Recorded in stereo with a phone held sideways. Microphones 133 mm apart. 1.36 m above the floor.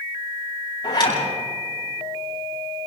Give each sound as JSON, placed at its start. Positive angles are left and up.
{"t": 0.8, "sound": "a zipper", "side_deg": 35, "distance_m": 7.0}